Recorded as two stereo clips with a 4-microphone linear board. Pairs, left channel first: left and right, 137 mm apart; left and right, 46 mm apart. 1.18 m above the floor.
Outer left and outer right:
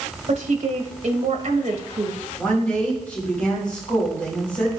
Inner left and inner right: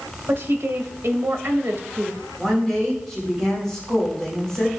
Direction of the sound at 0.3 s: 55° right (ahead or behind).